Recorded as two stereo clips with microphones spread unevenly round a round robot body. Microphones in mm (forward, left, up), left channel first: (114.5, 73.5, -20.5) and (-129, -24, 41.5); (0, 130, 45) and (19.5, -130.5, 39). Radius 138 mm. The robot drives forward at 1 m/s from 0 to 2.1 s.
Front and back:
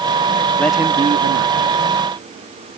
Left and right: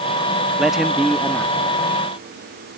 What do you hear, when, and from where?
0.6 s a man speaking: 5° right; by 1.9 s straight behind